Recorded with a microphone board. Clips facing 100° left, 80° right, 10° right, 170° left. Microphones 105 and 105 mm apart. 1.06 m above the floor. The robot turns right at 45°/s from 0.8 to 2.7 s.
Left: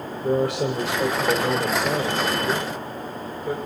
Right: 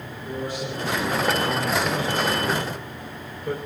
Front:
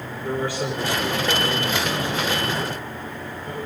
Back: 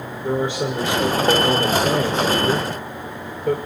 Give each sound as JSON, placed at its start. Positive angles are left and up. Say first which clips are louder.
{"t": 0.2, "sound": "a man speaking", "louder": "left 9 dB, back 4 dB", "azimuth_deg": 100, "distance_m": 4.5}